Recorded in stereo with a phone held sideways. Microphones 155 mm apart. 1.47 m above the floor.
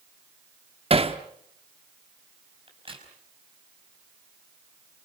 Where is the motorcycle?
I don't hear a motorcycle.